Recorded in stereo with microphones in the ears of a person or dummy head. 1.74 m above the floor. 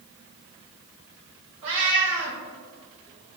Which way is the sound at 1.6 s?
25° right (ahead or behind).